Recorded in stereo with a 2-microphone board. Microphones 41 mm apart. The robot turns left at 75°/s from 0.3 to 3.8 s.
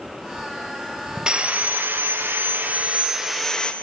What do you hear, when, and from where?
1.3 s sawing: 25° right, 0.7 m; by 3.7 s 150° left, 0.7 m